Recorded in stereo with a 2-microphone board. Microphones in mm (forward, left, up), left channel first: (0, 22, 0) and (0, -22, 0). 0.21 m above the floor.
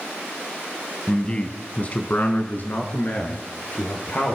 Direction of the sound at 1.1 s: 15° left (ahead or behind).